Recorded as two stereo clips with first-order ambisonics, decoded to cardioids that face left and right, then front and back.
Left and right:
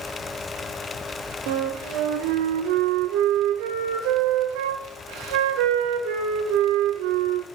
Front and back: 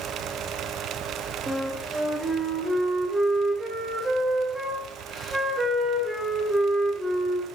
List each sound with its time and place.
1.5 s a flute: 100° right, 0.6 m